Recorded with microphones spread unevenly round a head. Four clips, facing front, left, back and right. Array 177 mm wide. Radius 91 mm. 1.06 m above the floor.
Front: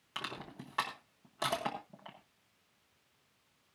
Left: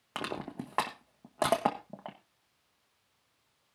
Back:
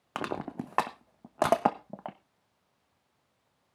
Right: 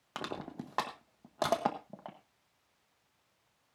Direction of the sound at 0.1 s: 165° left.